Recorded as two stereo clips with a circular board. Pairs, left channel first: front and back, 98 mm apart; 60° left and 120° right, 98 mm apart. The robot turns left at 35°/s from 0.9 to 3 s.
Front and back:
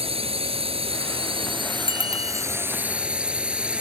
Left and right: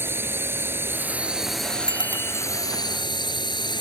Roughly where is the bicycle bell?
Left.